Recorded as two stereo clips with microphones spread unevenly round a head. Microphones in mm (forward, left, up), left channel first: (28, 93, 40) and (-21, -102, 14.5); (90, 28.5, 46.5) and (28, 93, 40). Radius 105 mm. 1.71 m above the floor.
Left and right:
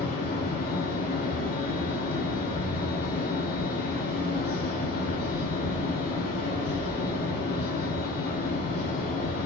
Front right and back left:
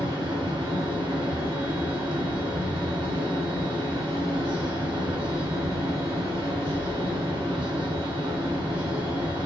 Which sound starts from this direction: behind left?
A fan, at 0.0 s.